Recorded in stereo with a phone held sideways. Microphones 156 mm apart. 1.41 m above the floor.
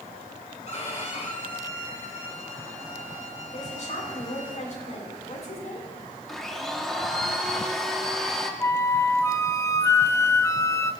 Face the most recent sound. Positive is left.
turn(degrees=20)  # may be behind; listen again after turning